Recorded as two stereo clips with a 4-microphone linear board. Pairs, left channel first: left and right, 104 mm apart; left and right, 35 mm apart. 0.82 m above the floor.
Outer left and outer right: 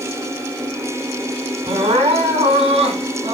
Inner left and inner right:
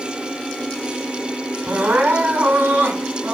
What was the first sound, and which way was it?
Crying, 70° right (ahead or behind).